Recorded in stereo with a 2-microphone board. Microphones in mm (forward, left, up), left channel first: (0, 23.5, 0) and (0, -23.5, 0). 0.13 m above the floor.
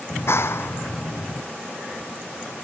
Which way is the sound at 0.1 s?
65° left (ahead or behind).